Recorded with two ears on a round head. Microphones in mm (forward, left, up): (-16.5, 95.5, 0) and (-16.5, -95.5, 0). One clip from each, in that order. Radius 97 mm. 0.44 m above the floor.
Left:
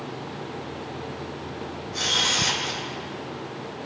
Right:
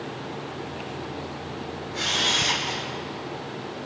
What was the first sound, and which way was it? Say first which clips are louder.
A camera shutter: left 1 dB; 85° left.